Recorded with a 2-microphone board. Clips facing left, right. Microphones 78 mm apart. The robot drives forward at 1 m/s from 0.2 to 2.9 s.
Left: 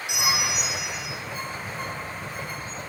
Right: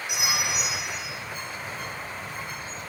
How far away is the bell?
About 8.5 m.